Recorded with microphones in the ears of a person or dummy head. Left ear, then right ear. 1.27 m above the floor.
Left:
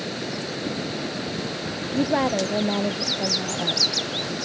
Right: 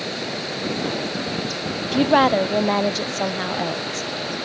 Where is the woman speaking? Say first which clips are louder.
Right 7 dB; 50° right (ahead or behind).